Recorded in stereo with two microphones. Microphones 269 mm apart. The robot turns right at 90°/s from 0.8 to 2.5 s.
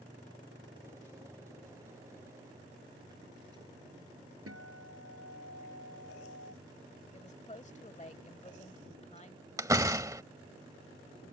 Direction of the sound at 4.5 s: 60° right (ahead or behind).